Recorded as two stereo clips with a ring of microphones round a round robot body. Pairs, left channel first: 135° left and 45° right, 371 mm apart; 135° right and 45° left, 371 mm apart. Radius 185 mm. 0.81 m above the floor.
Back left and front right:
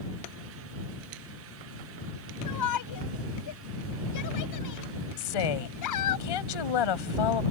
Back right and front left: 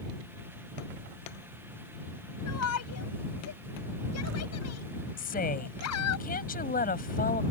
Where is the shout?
175° left.